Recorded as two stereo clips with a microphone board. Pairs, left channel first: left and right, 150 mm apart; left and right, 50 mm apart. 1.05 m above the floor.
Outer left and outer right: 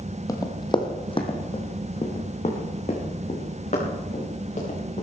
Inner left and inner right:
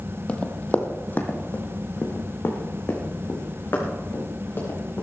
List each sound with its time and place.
0.3 s running footsteps: 20° left (ahead or behind), 1.5 m; by 5.0 s 50° left (ahead or behind), 5.5 m